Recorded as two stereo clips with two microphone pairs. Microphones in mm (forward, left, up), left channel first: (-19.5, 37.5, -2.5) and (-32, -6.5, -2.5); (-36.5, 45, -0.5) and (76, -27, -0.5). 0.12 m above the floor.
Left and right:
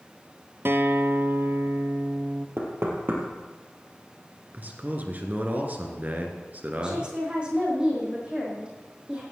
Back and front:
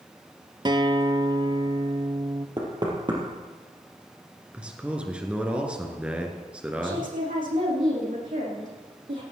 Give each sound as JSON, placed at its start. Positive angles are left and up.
{"t": 0.7, "sound": "a guitar", "azimuth_deg": -80, "distance_m": 0.7}
{"t": 2.6, "sound": "knocking", "azimuth_deg": -85, "distance_m": 3.0}
{"t": 4.5, "sound": "a man speaking", "azimuth_deg": -110, "distance_m": 2.0}
{"t": 6.8, "sound": "a woman speaking", "azimuth_deg": -35, "distance_m": 6.0}